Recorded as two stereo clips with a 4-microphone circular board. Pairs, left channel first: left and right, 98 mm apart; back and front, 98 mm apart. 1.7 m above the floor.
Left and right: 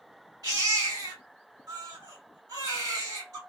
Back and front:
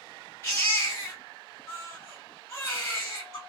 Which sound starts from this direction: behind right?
A baby crying, at 0.4 s.